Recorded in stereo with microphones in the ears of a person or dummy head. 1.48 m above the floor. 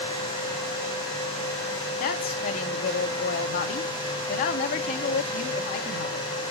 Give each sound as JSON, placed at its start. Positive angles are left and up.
{"t": 2.0, "sound": "a woman speaking", "side_deg": 50, "distance_m": 0.8}